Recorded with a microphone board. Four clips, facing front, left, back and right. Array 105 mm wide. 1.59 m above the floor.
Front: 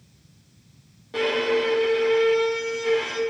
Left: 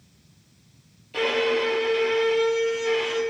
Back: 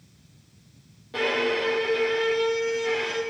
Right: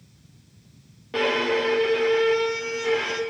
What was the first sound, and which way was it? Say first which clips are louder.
A violin: even, front 3 dB; 85° right.